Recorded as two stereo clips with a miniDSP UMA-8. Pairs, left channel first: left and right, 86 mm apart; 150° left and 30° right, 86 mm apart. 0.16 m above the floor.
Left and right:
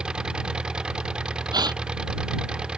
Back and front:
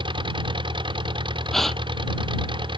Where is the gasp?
125° right.